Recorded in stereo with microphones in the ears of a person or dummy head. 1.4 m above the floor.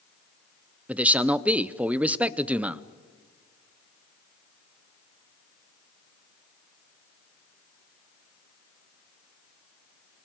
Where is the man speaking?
10° right (ahead or behind), 0.7 m.